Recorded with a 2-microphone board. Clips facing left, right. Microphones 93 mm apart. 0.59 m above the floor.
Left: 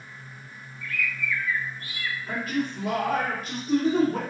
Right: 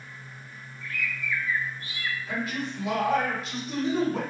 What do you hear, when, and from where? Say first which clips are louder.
0.8 s a bird: left 2 dB; 25° right (ahead or behind), 0.6 m
2.3 s a man speaking: left 6 dB; 40° left (ahead or behind), 1.7 m